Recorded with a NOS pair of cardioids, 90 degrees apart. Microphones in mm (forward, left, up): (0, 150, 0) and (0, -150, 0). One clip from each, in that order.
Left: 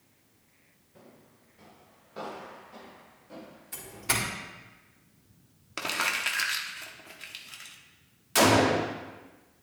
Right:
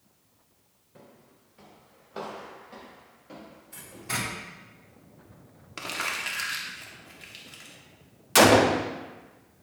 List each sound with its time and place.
0.9 s footsteps: 35° right, 4 m; by 4.1 s 60° right, 8 m
3.7 s a doorbell: 60° left, 3.5 m
5.8 s crumpling: 20° left, 1.5 m
8.3 s a gunshot: 35° right, 1.2 m